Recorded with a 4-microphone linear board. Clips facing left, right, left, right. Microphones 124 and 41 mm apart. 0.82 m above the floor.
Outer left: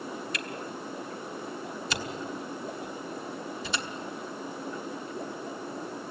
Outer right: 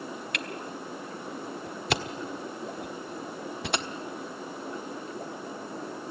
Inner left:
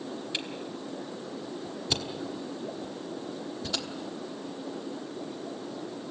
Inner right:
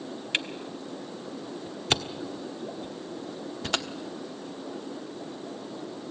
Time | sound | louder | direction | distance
0.3 | a camera shutter | even, inner right 4 dB | 65° right (ahead or behind) | 1.1 m